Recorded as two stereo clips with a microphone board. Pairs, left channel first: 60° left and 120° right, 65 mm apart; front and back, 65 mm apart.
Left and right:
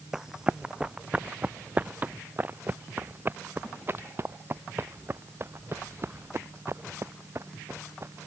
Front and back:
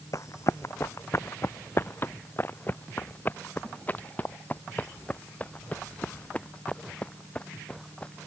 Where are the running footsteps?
35° right; by 8.3 s 75° right.